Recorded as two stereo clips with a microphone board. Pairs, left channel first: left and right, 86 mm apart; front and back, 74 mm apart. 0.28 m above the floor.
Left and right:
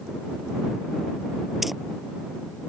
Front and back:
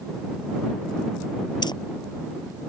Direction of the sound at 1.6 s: Straight ahead.